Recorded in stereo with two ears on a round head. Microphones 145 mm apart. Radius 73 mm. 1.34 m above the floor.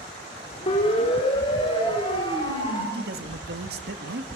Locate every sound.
0.7 s a siren: 35° left (ahead or behind), 4 m; by 2.8 s 30° left (ahead or behind), 6.5 m
2.9 s a man speaking: 65° right (ahead or behind), 2 m